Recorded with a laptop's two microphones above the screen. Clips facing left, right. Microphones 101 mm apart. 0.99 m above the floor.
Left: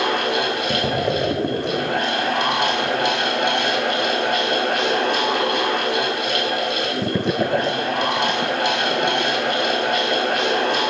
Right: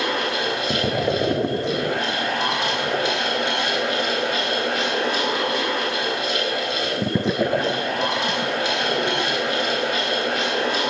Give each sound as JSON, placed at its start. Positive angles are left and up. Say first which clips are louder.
{"t": 0.0, "sound": "a fan", "louder": "left 3 dB", "side_deg": 65, "distance_m": 1.9}